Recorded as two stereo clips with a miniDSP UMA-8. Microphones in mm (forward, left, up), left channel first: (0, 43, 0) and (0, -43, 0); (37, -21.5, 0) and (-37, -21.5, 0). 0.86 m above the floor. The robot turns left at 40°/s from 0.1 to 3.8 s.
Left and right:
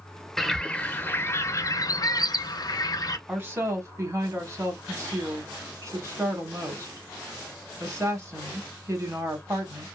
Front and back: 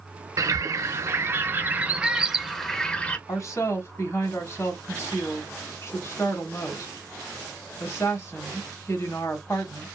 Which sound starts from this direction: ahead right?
A woman speaking, at 3.3 s.